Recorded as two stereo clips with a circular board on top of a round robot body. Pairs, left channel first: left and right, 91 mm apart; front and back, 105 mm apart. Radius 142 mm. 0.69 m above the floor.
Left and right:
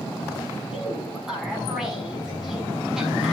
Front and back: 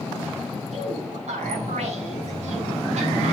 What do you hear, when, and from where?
0.7 s a woman speaking: 175° right, 7 m